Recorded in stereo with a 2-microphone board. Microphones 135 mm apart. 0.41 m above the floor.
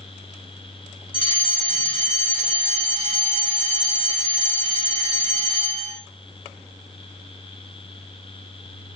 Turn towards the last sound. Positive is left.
turn(degrees=40)  # may be behind; listen again after turning